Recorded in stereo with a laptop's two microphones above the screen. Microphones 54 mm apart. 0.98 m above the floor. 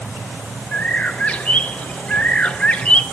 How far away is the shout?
No shout in this recording.